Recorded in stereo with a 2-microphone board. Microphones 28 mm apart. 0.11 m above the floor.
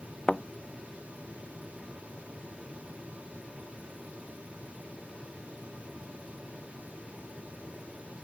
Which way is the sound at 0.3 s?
20° left (ahead or behind).